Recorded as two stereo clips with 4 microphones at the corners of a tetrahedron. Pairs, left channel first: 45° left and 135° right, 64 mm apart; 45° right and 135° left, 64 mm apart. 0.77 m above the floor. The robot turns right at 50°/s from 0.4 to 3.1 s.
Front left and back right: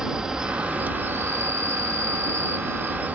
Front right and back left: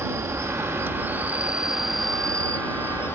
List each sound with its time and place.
0.0 s an insect: 145° left; by 3.2 s 80° right